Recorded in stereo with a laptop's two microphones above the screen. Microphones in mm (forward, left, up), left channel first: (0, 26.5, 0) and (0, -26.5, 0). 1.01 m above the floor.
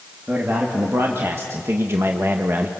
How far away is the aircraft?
I don't hear an aircraft.